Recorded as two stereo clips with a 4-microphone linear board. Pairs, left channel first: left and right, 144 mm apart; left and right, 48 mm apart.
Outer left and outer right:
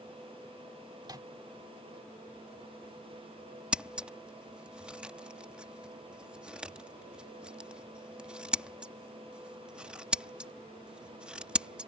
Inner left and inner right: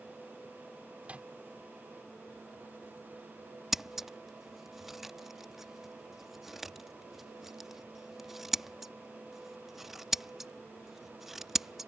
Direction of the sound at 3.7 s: 5° right (ahead or behind).